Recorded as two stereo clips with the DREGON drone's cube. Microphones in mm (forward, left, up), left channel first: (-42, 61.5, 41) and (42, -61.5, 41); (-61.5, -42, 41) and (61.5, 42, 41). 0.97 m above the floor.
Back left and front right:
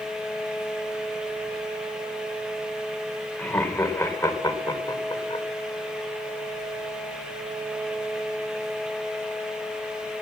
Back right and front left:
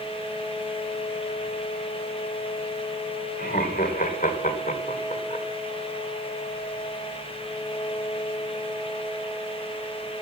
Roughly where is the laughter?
Behind right.